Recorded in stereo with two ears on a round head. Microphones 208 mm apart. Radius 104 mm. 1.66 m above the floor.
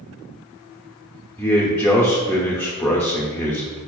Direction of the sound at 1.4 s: 5° left (ahead or behind).